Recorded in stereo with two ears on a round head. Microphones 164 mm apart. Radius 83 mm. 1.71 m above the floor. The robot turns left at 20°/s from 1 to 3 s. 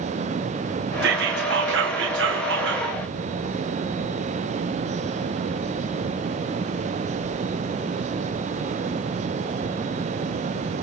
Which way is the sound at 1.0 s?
65° right.